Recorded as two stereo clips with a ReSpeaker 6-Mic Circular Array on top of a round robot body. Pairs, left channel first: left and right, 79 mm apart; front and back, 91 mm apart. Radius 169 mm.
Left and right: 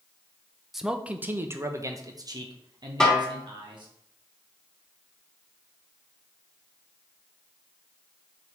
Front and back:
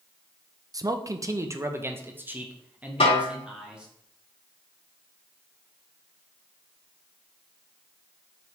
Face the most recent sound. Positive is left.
turn(degrees=5)